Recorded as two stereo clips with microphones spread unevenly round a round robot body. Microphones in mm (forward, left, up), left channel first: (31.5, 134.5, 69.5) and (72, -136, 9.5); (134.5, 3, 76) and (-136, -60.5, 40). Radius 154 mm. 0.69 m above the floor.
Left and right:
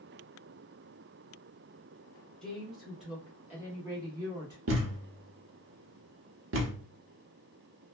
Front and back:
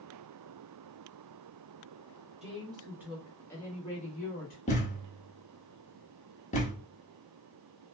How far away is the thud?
About 0.9 m.